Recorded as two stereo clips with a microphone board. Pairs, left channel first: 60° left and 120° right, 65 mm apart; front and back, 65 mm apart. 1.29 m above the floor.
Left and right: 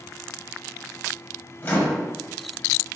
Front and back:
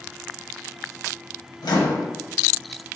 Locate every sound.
1.6 s a microwave: 5° left, 0.8 m